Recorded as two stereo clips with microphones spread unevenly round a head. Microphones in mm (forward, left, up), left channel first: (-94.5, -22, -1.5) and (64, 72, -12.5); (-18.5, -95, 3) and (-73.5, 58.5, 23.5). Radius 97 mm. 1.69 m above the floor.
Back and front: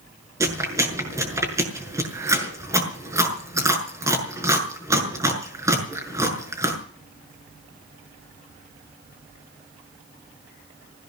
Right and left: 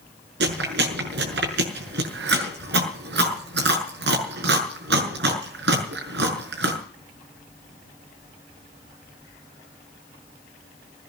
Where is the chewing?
105° left, 6 m.